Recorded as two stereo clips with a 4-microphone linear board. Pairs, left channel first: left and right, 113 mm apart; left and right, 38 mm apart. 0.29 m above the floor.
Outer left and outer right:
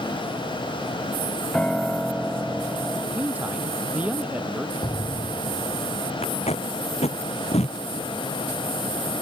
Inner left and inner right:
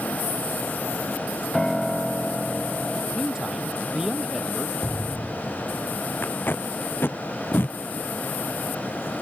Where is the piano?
10° left (ahead or behind).